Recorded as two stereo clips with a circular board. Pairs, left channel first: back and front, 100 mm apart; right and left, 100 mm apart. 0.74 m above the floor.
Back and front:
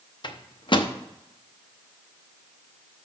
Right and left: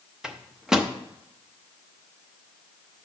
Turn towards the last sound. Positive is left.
turn(degrees=175)